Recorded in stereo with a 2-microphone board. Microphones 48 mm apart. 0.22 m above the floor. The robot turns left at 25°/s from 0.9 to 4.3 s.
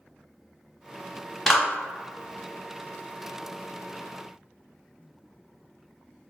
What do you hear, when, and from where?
1.5 s a clap: 5° left (ahead or behind), 0.8 m